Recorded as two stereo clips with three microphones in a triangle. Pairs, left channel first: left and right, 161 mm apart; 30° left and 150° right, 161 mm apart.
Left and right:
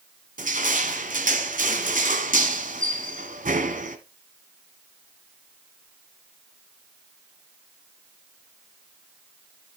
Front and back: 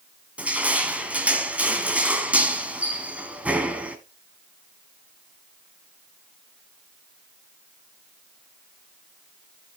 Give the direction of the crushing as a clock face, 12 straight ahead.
2 o'clock.